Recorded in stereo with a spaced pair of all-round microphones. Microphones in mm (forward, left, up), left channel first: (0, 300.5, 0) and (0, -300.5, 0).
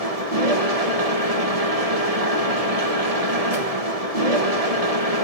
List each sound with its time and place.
0.0 s a machine running: 75° right (ahead or behind), 2 m